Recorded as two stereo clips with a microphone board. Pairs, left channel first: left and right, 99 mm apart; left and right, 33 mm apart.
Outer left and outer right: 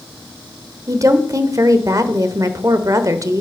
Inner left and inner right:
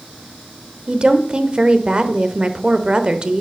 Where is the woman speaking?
35° right (ahead or behind), 0.9 m.